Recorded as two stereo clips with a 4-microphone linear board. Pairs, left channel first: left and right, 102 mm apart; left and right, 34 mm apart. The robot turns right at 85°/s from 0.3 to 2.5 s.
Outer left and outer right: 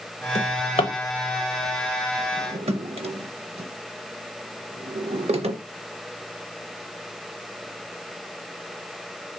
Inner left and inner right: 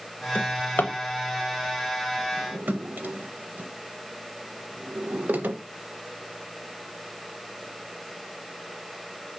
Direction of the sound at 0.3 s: 75° left (ahead or behind).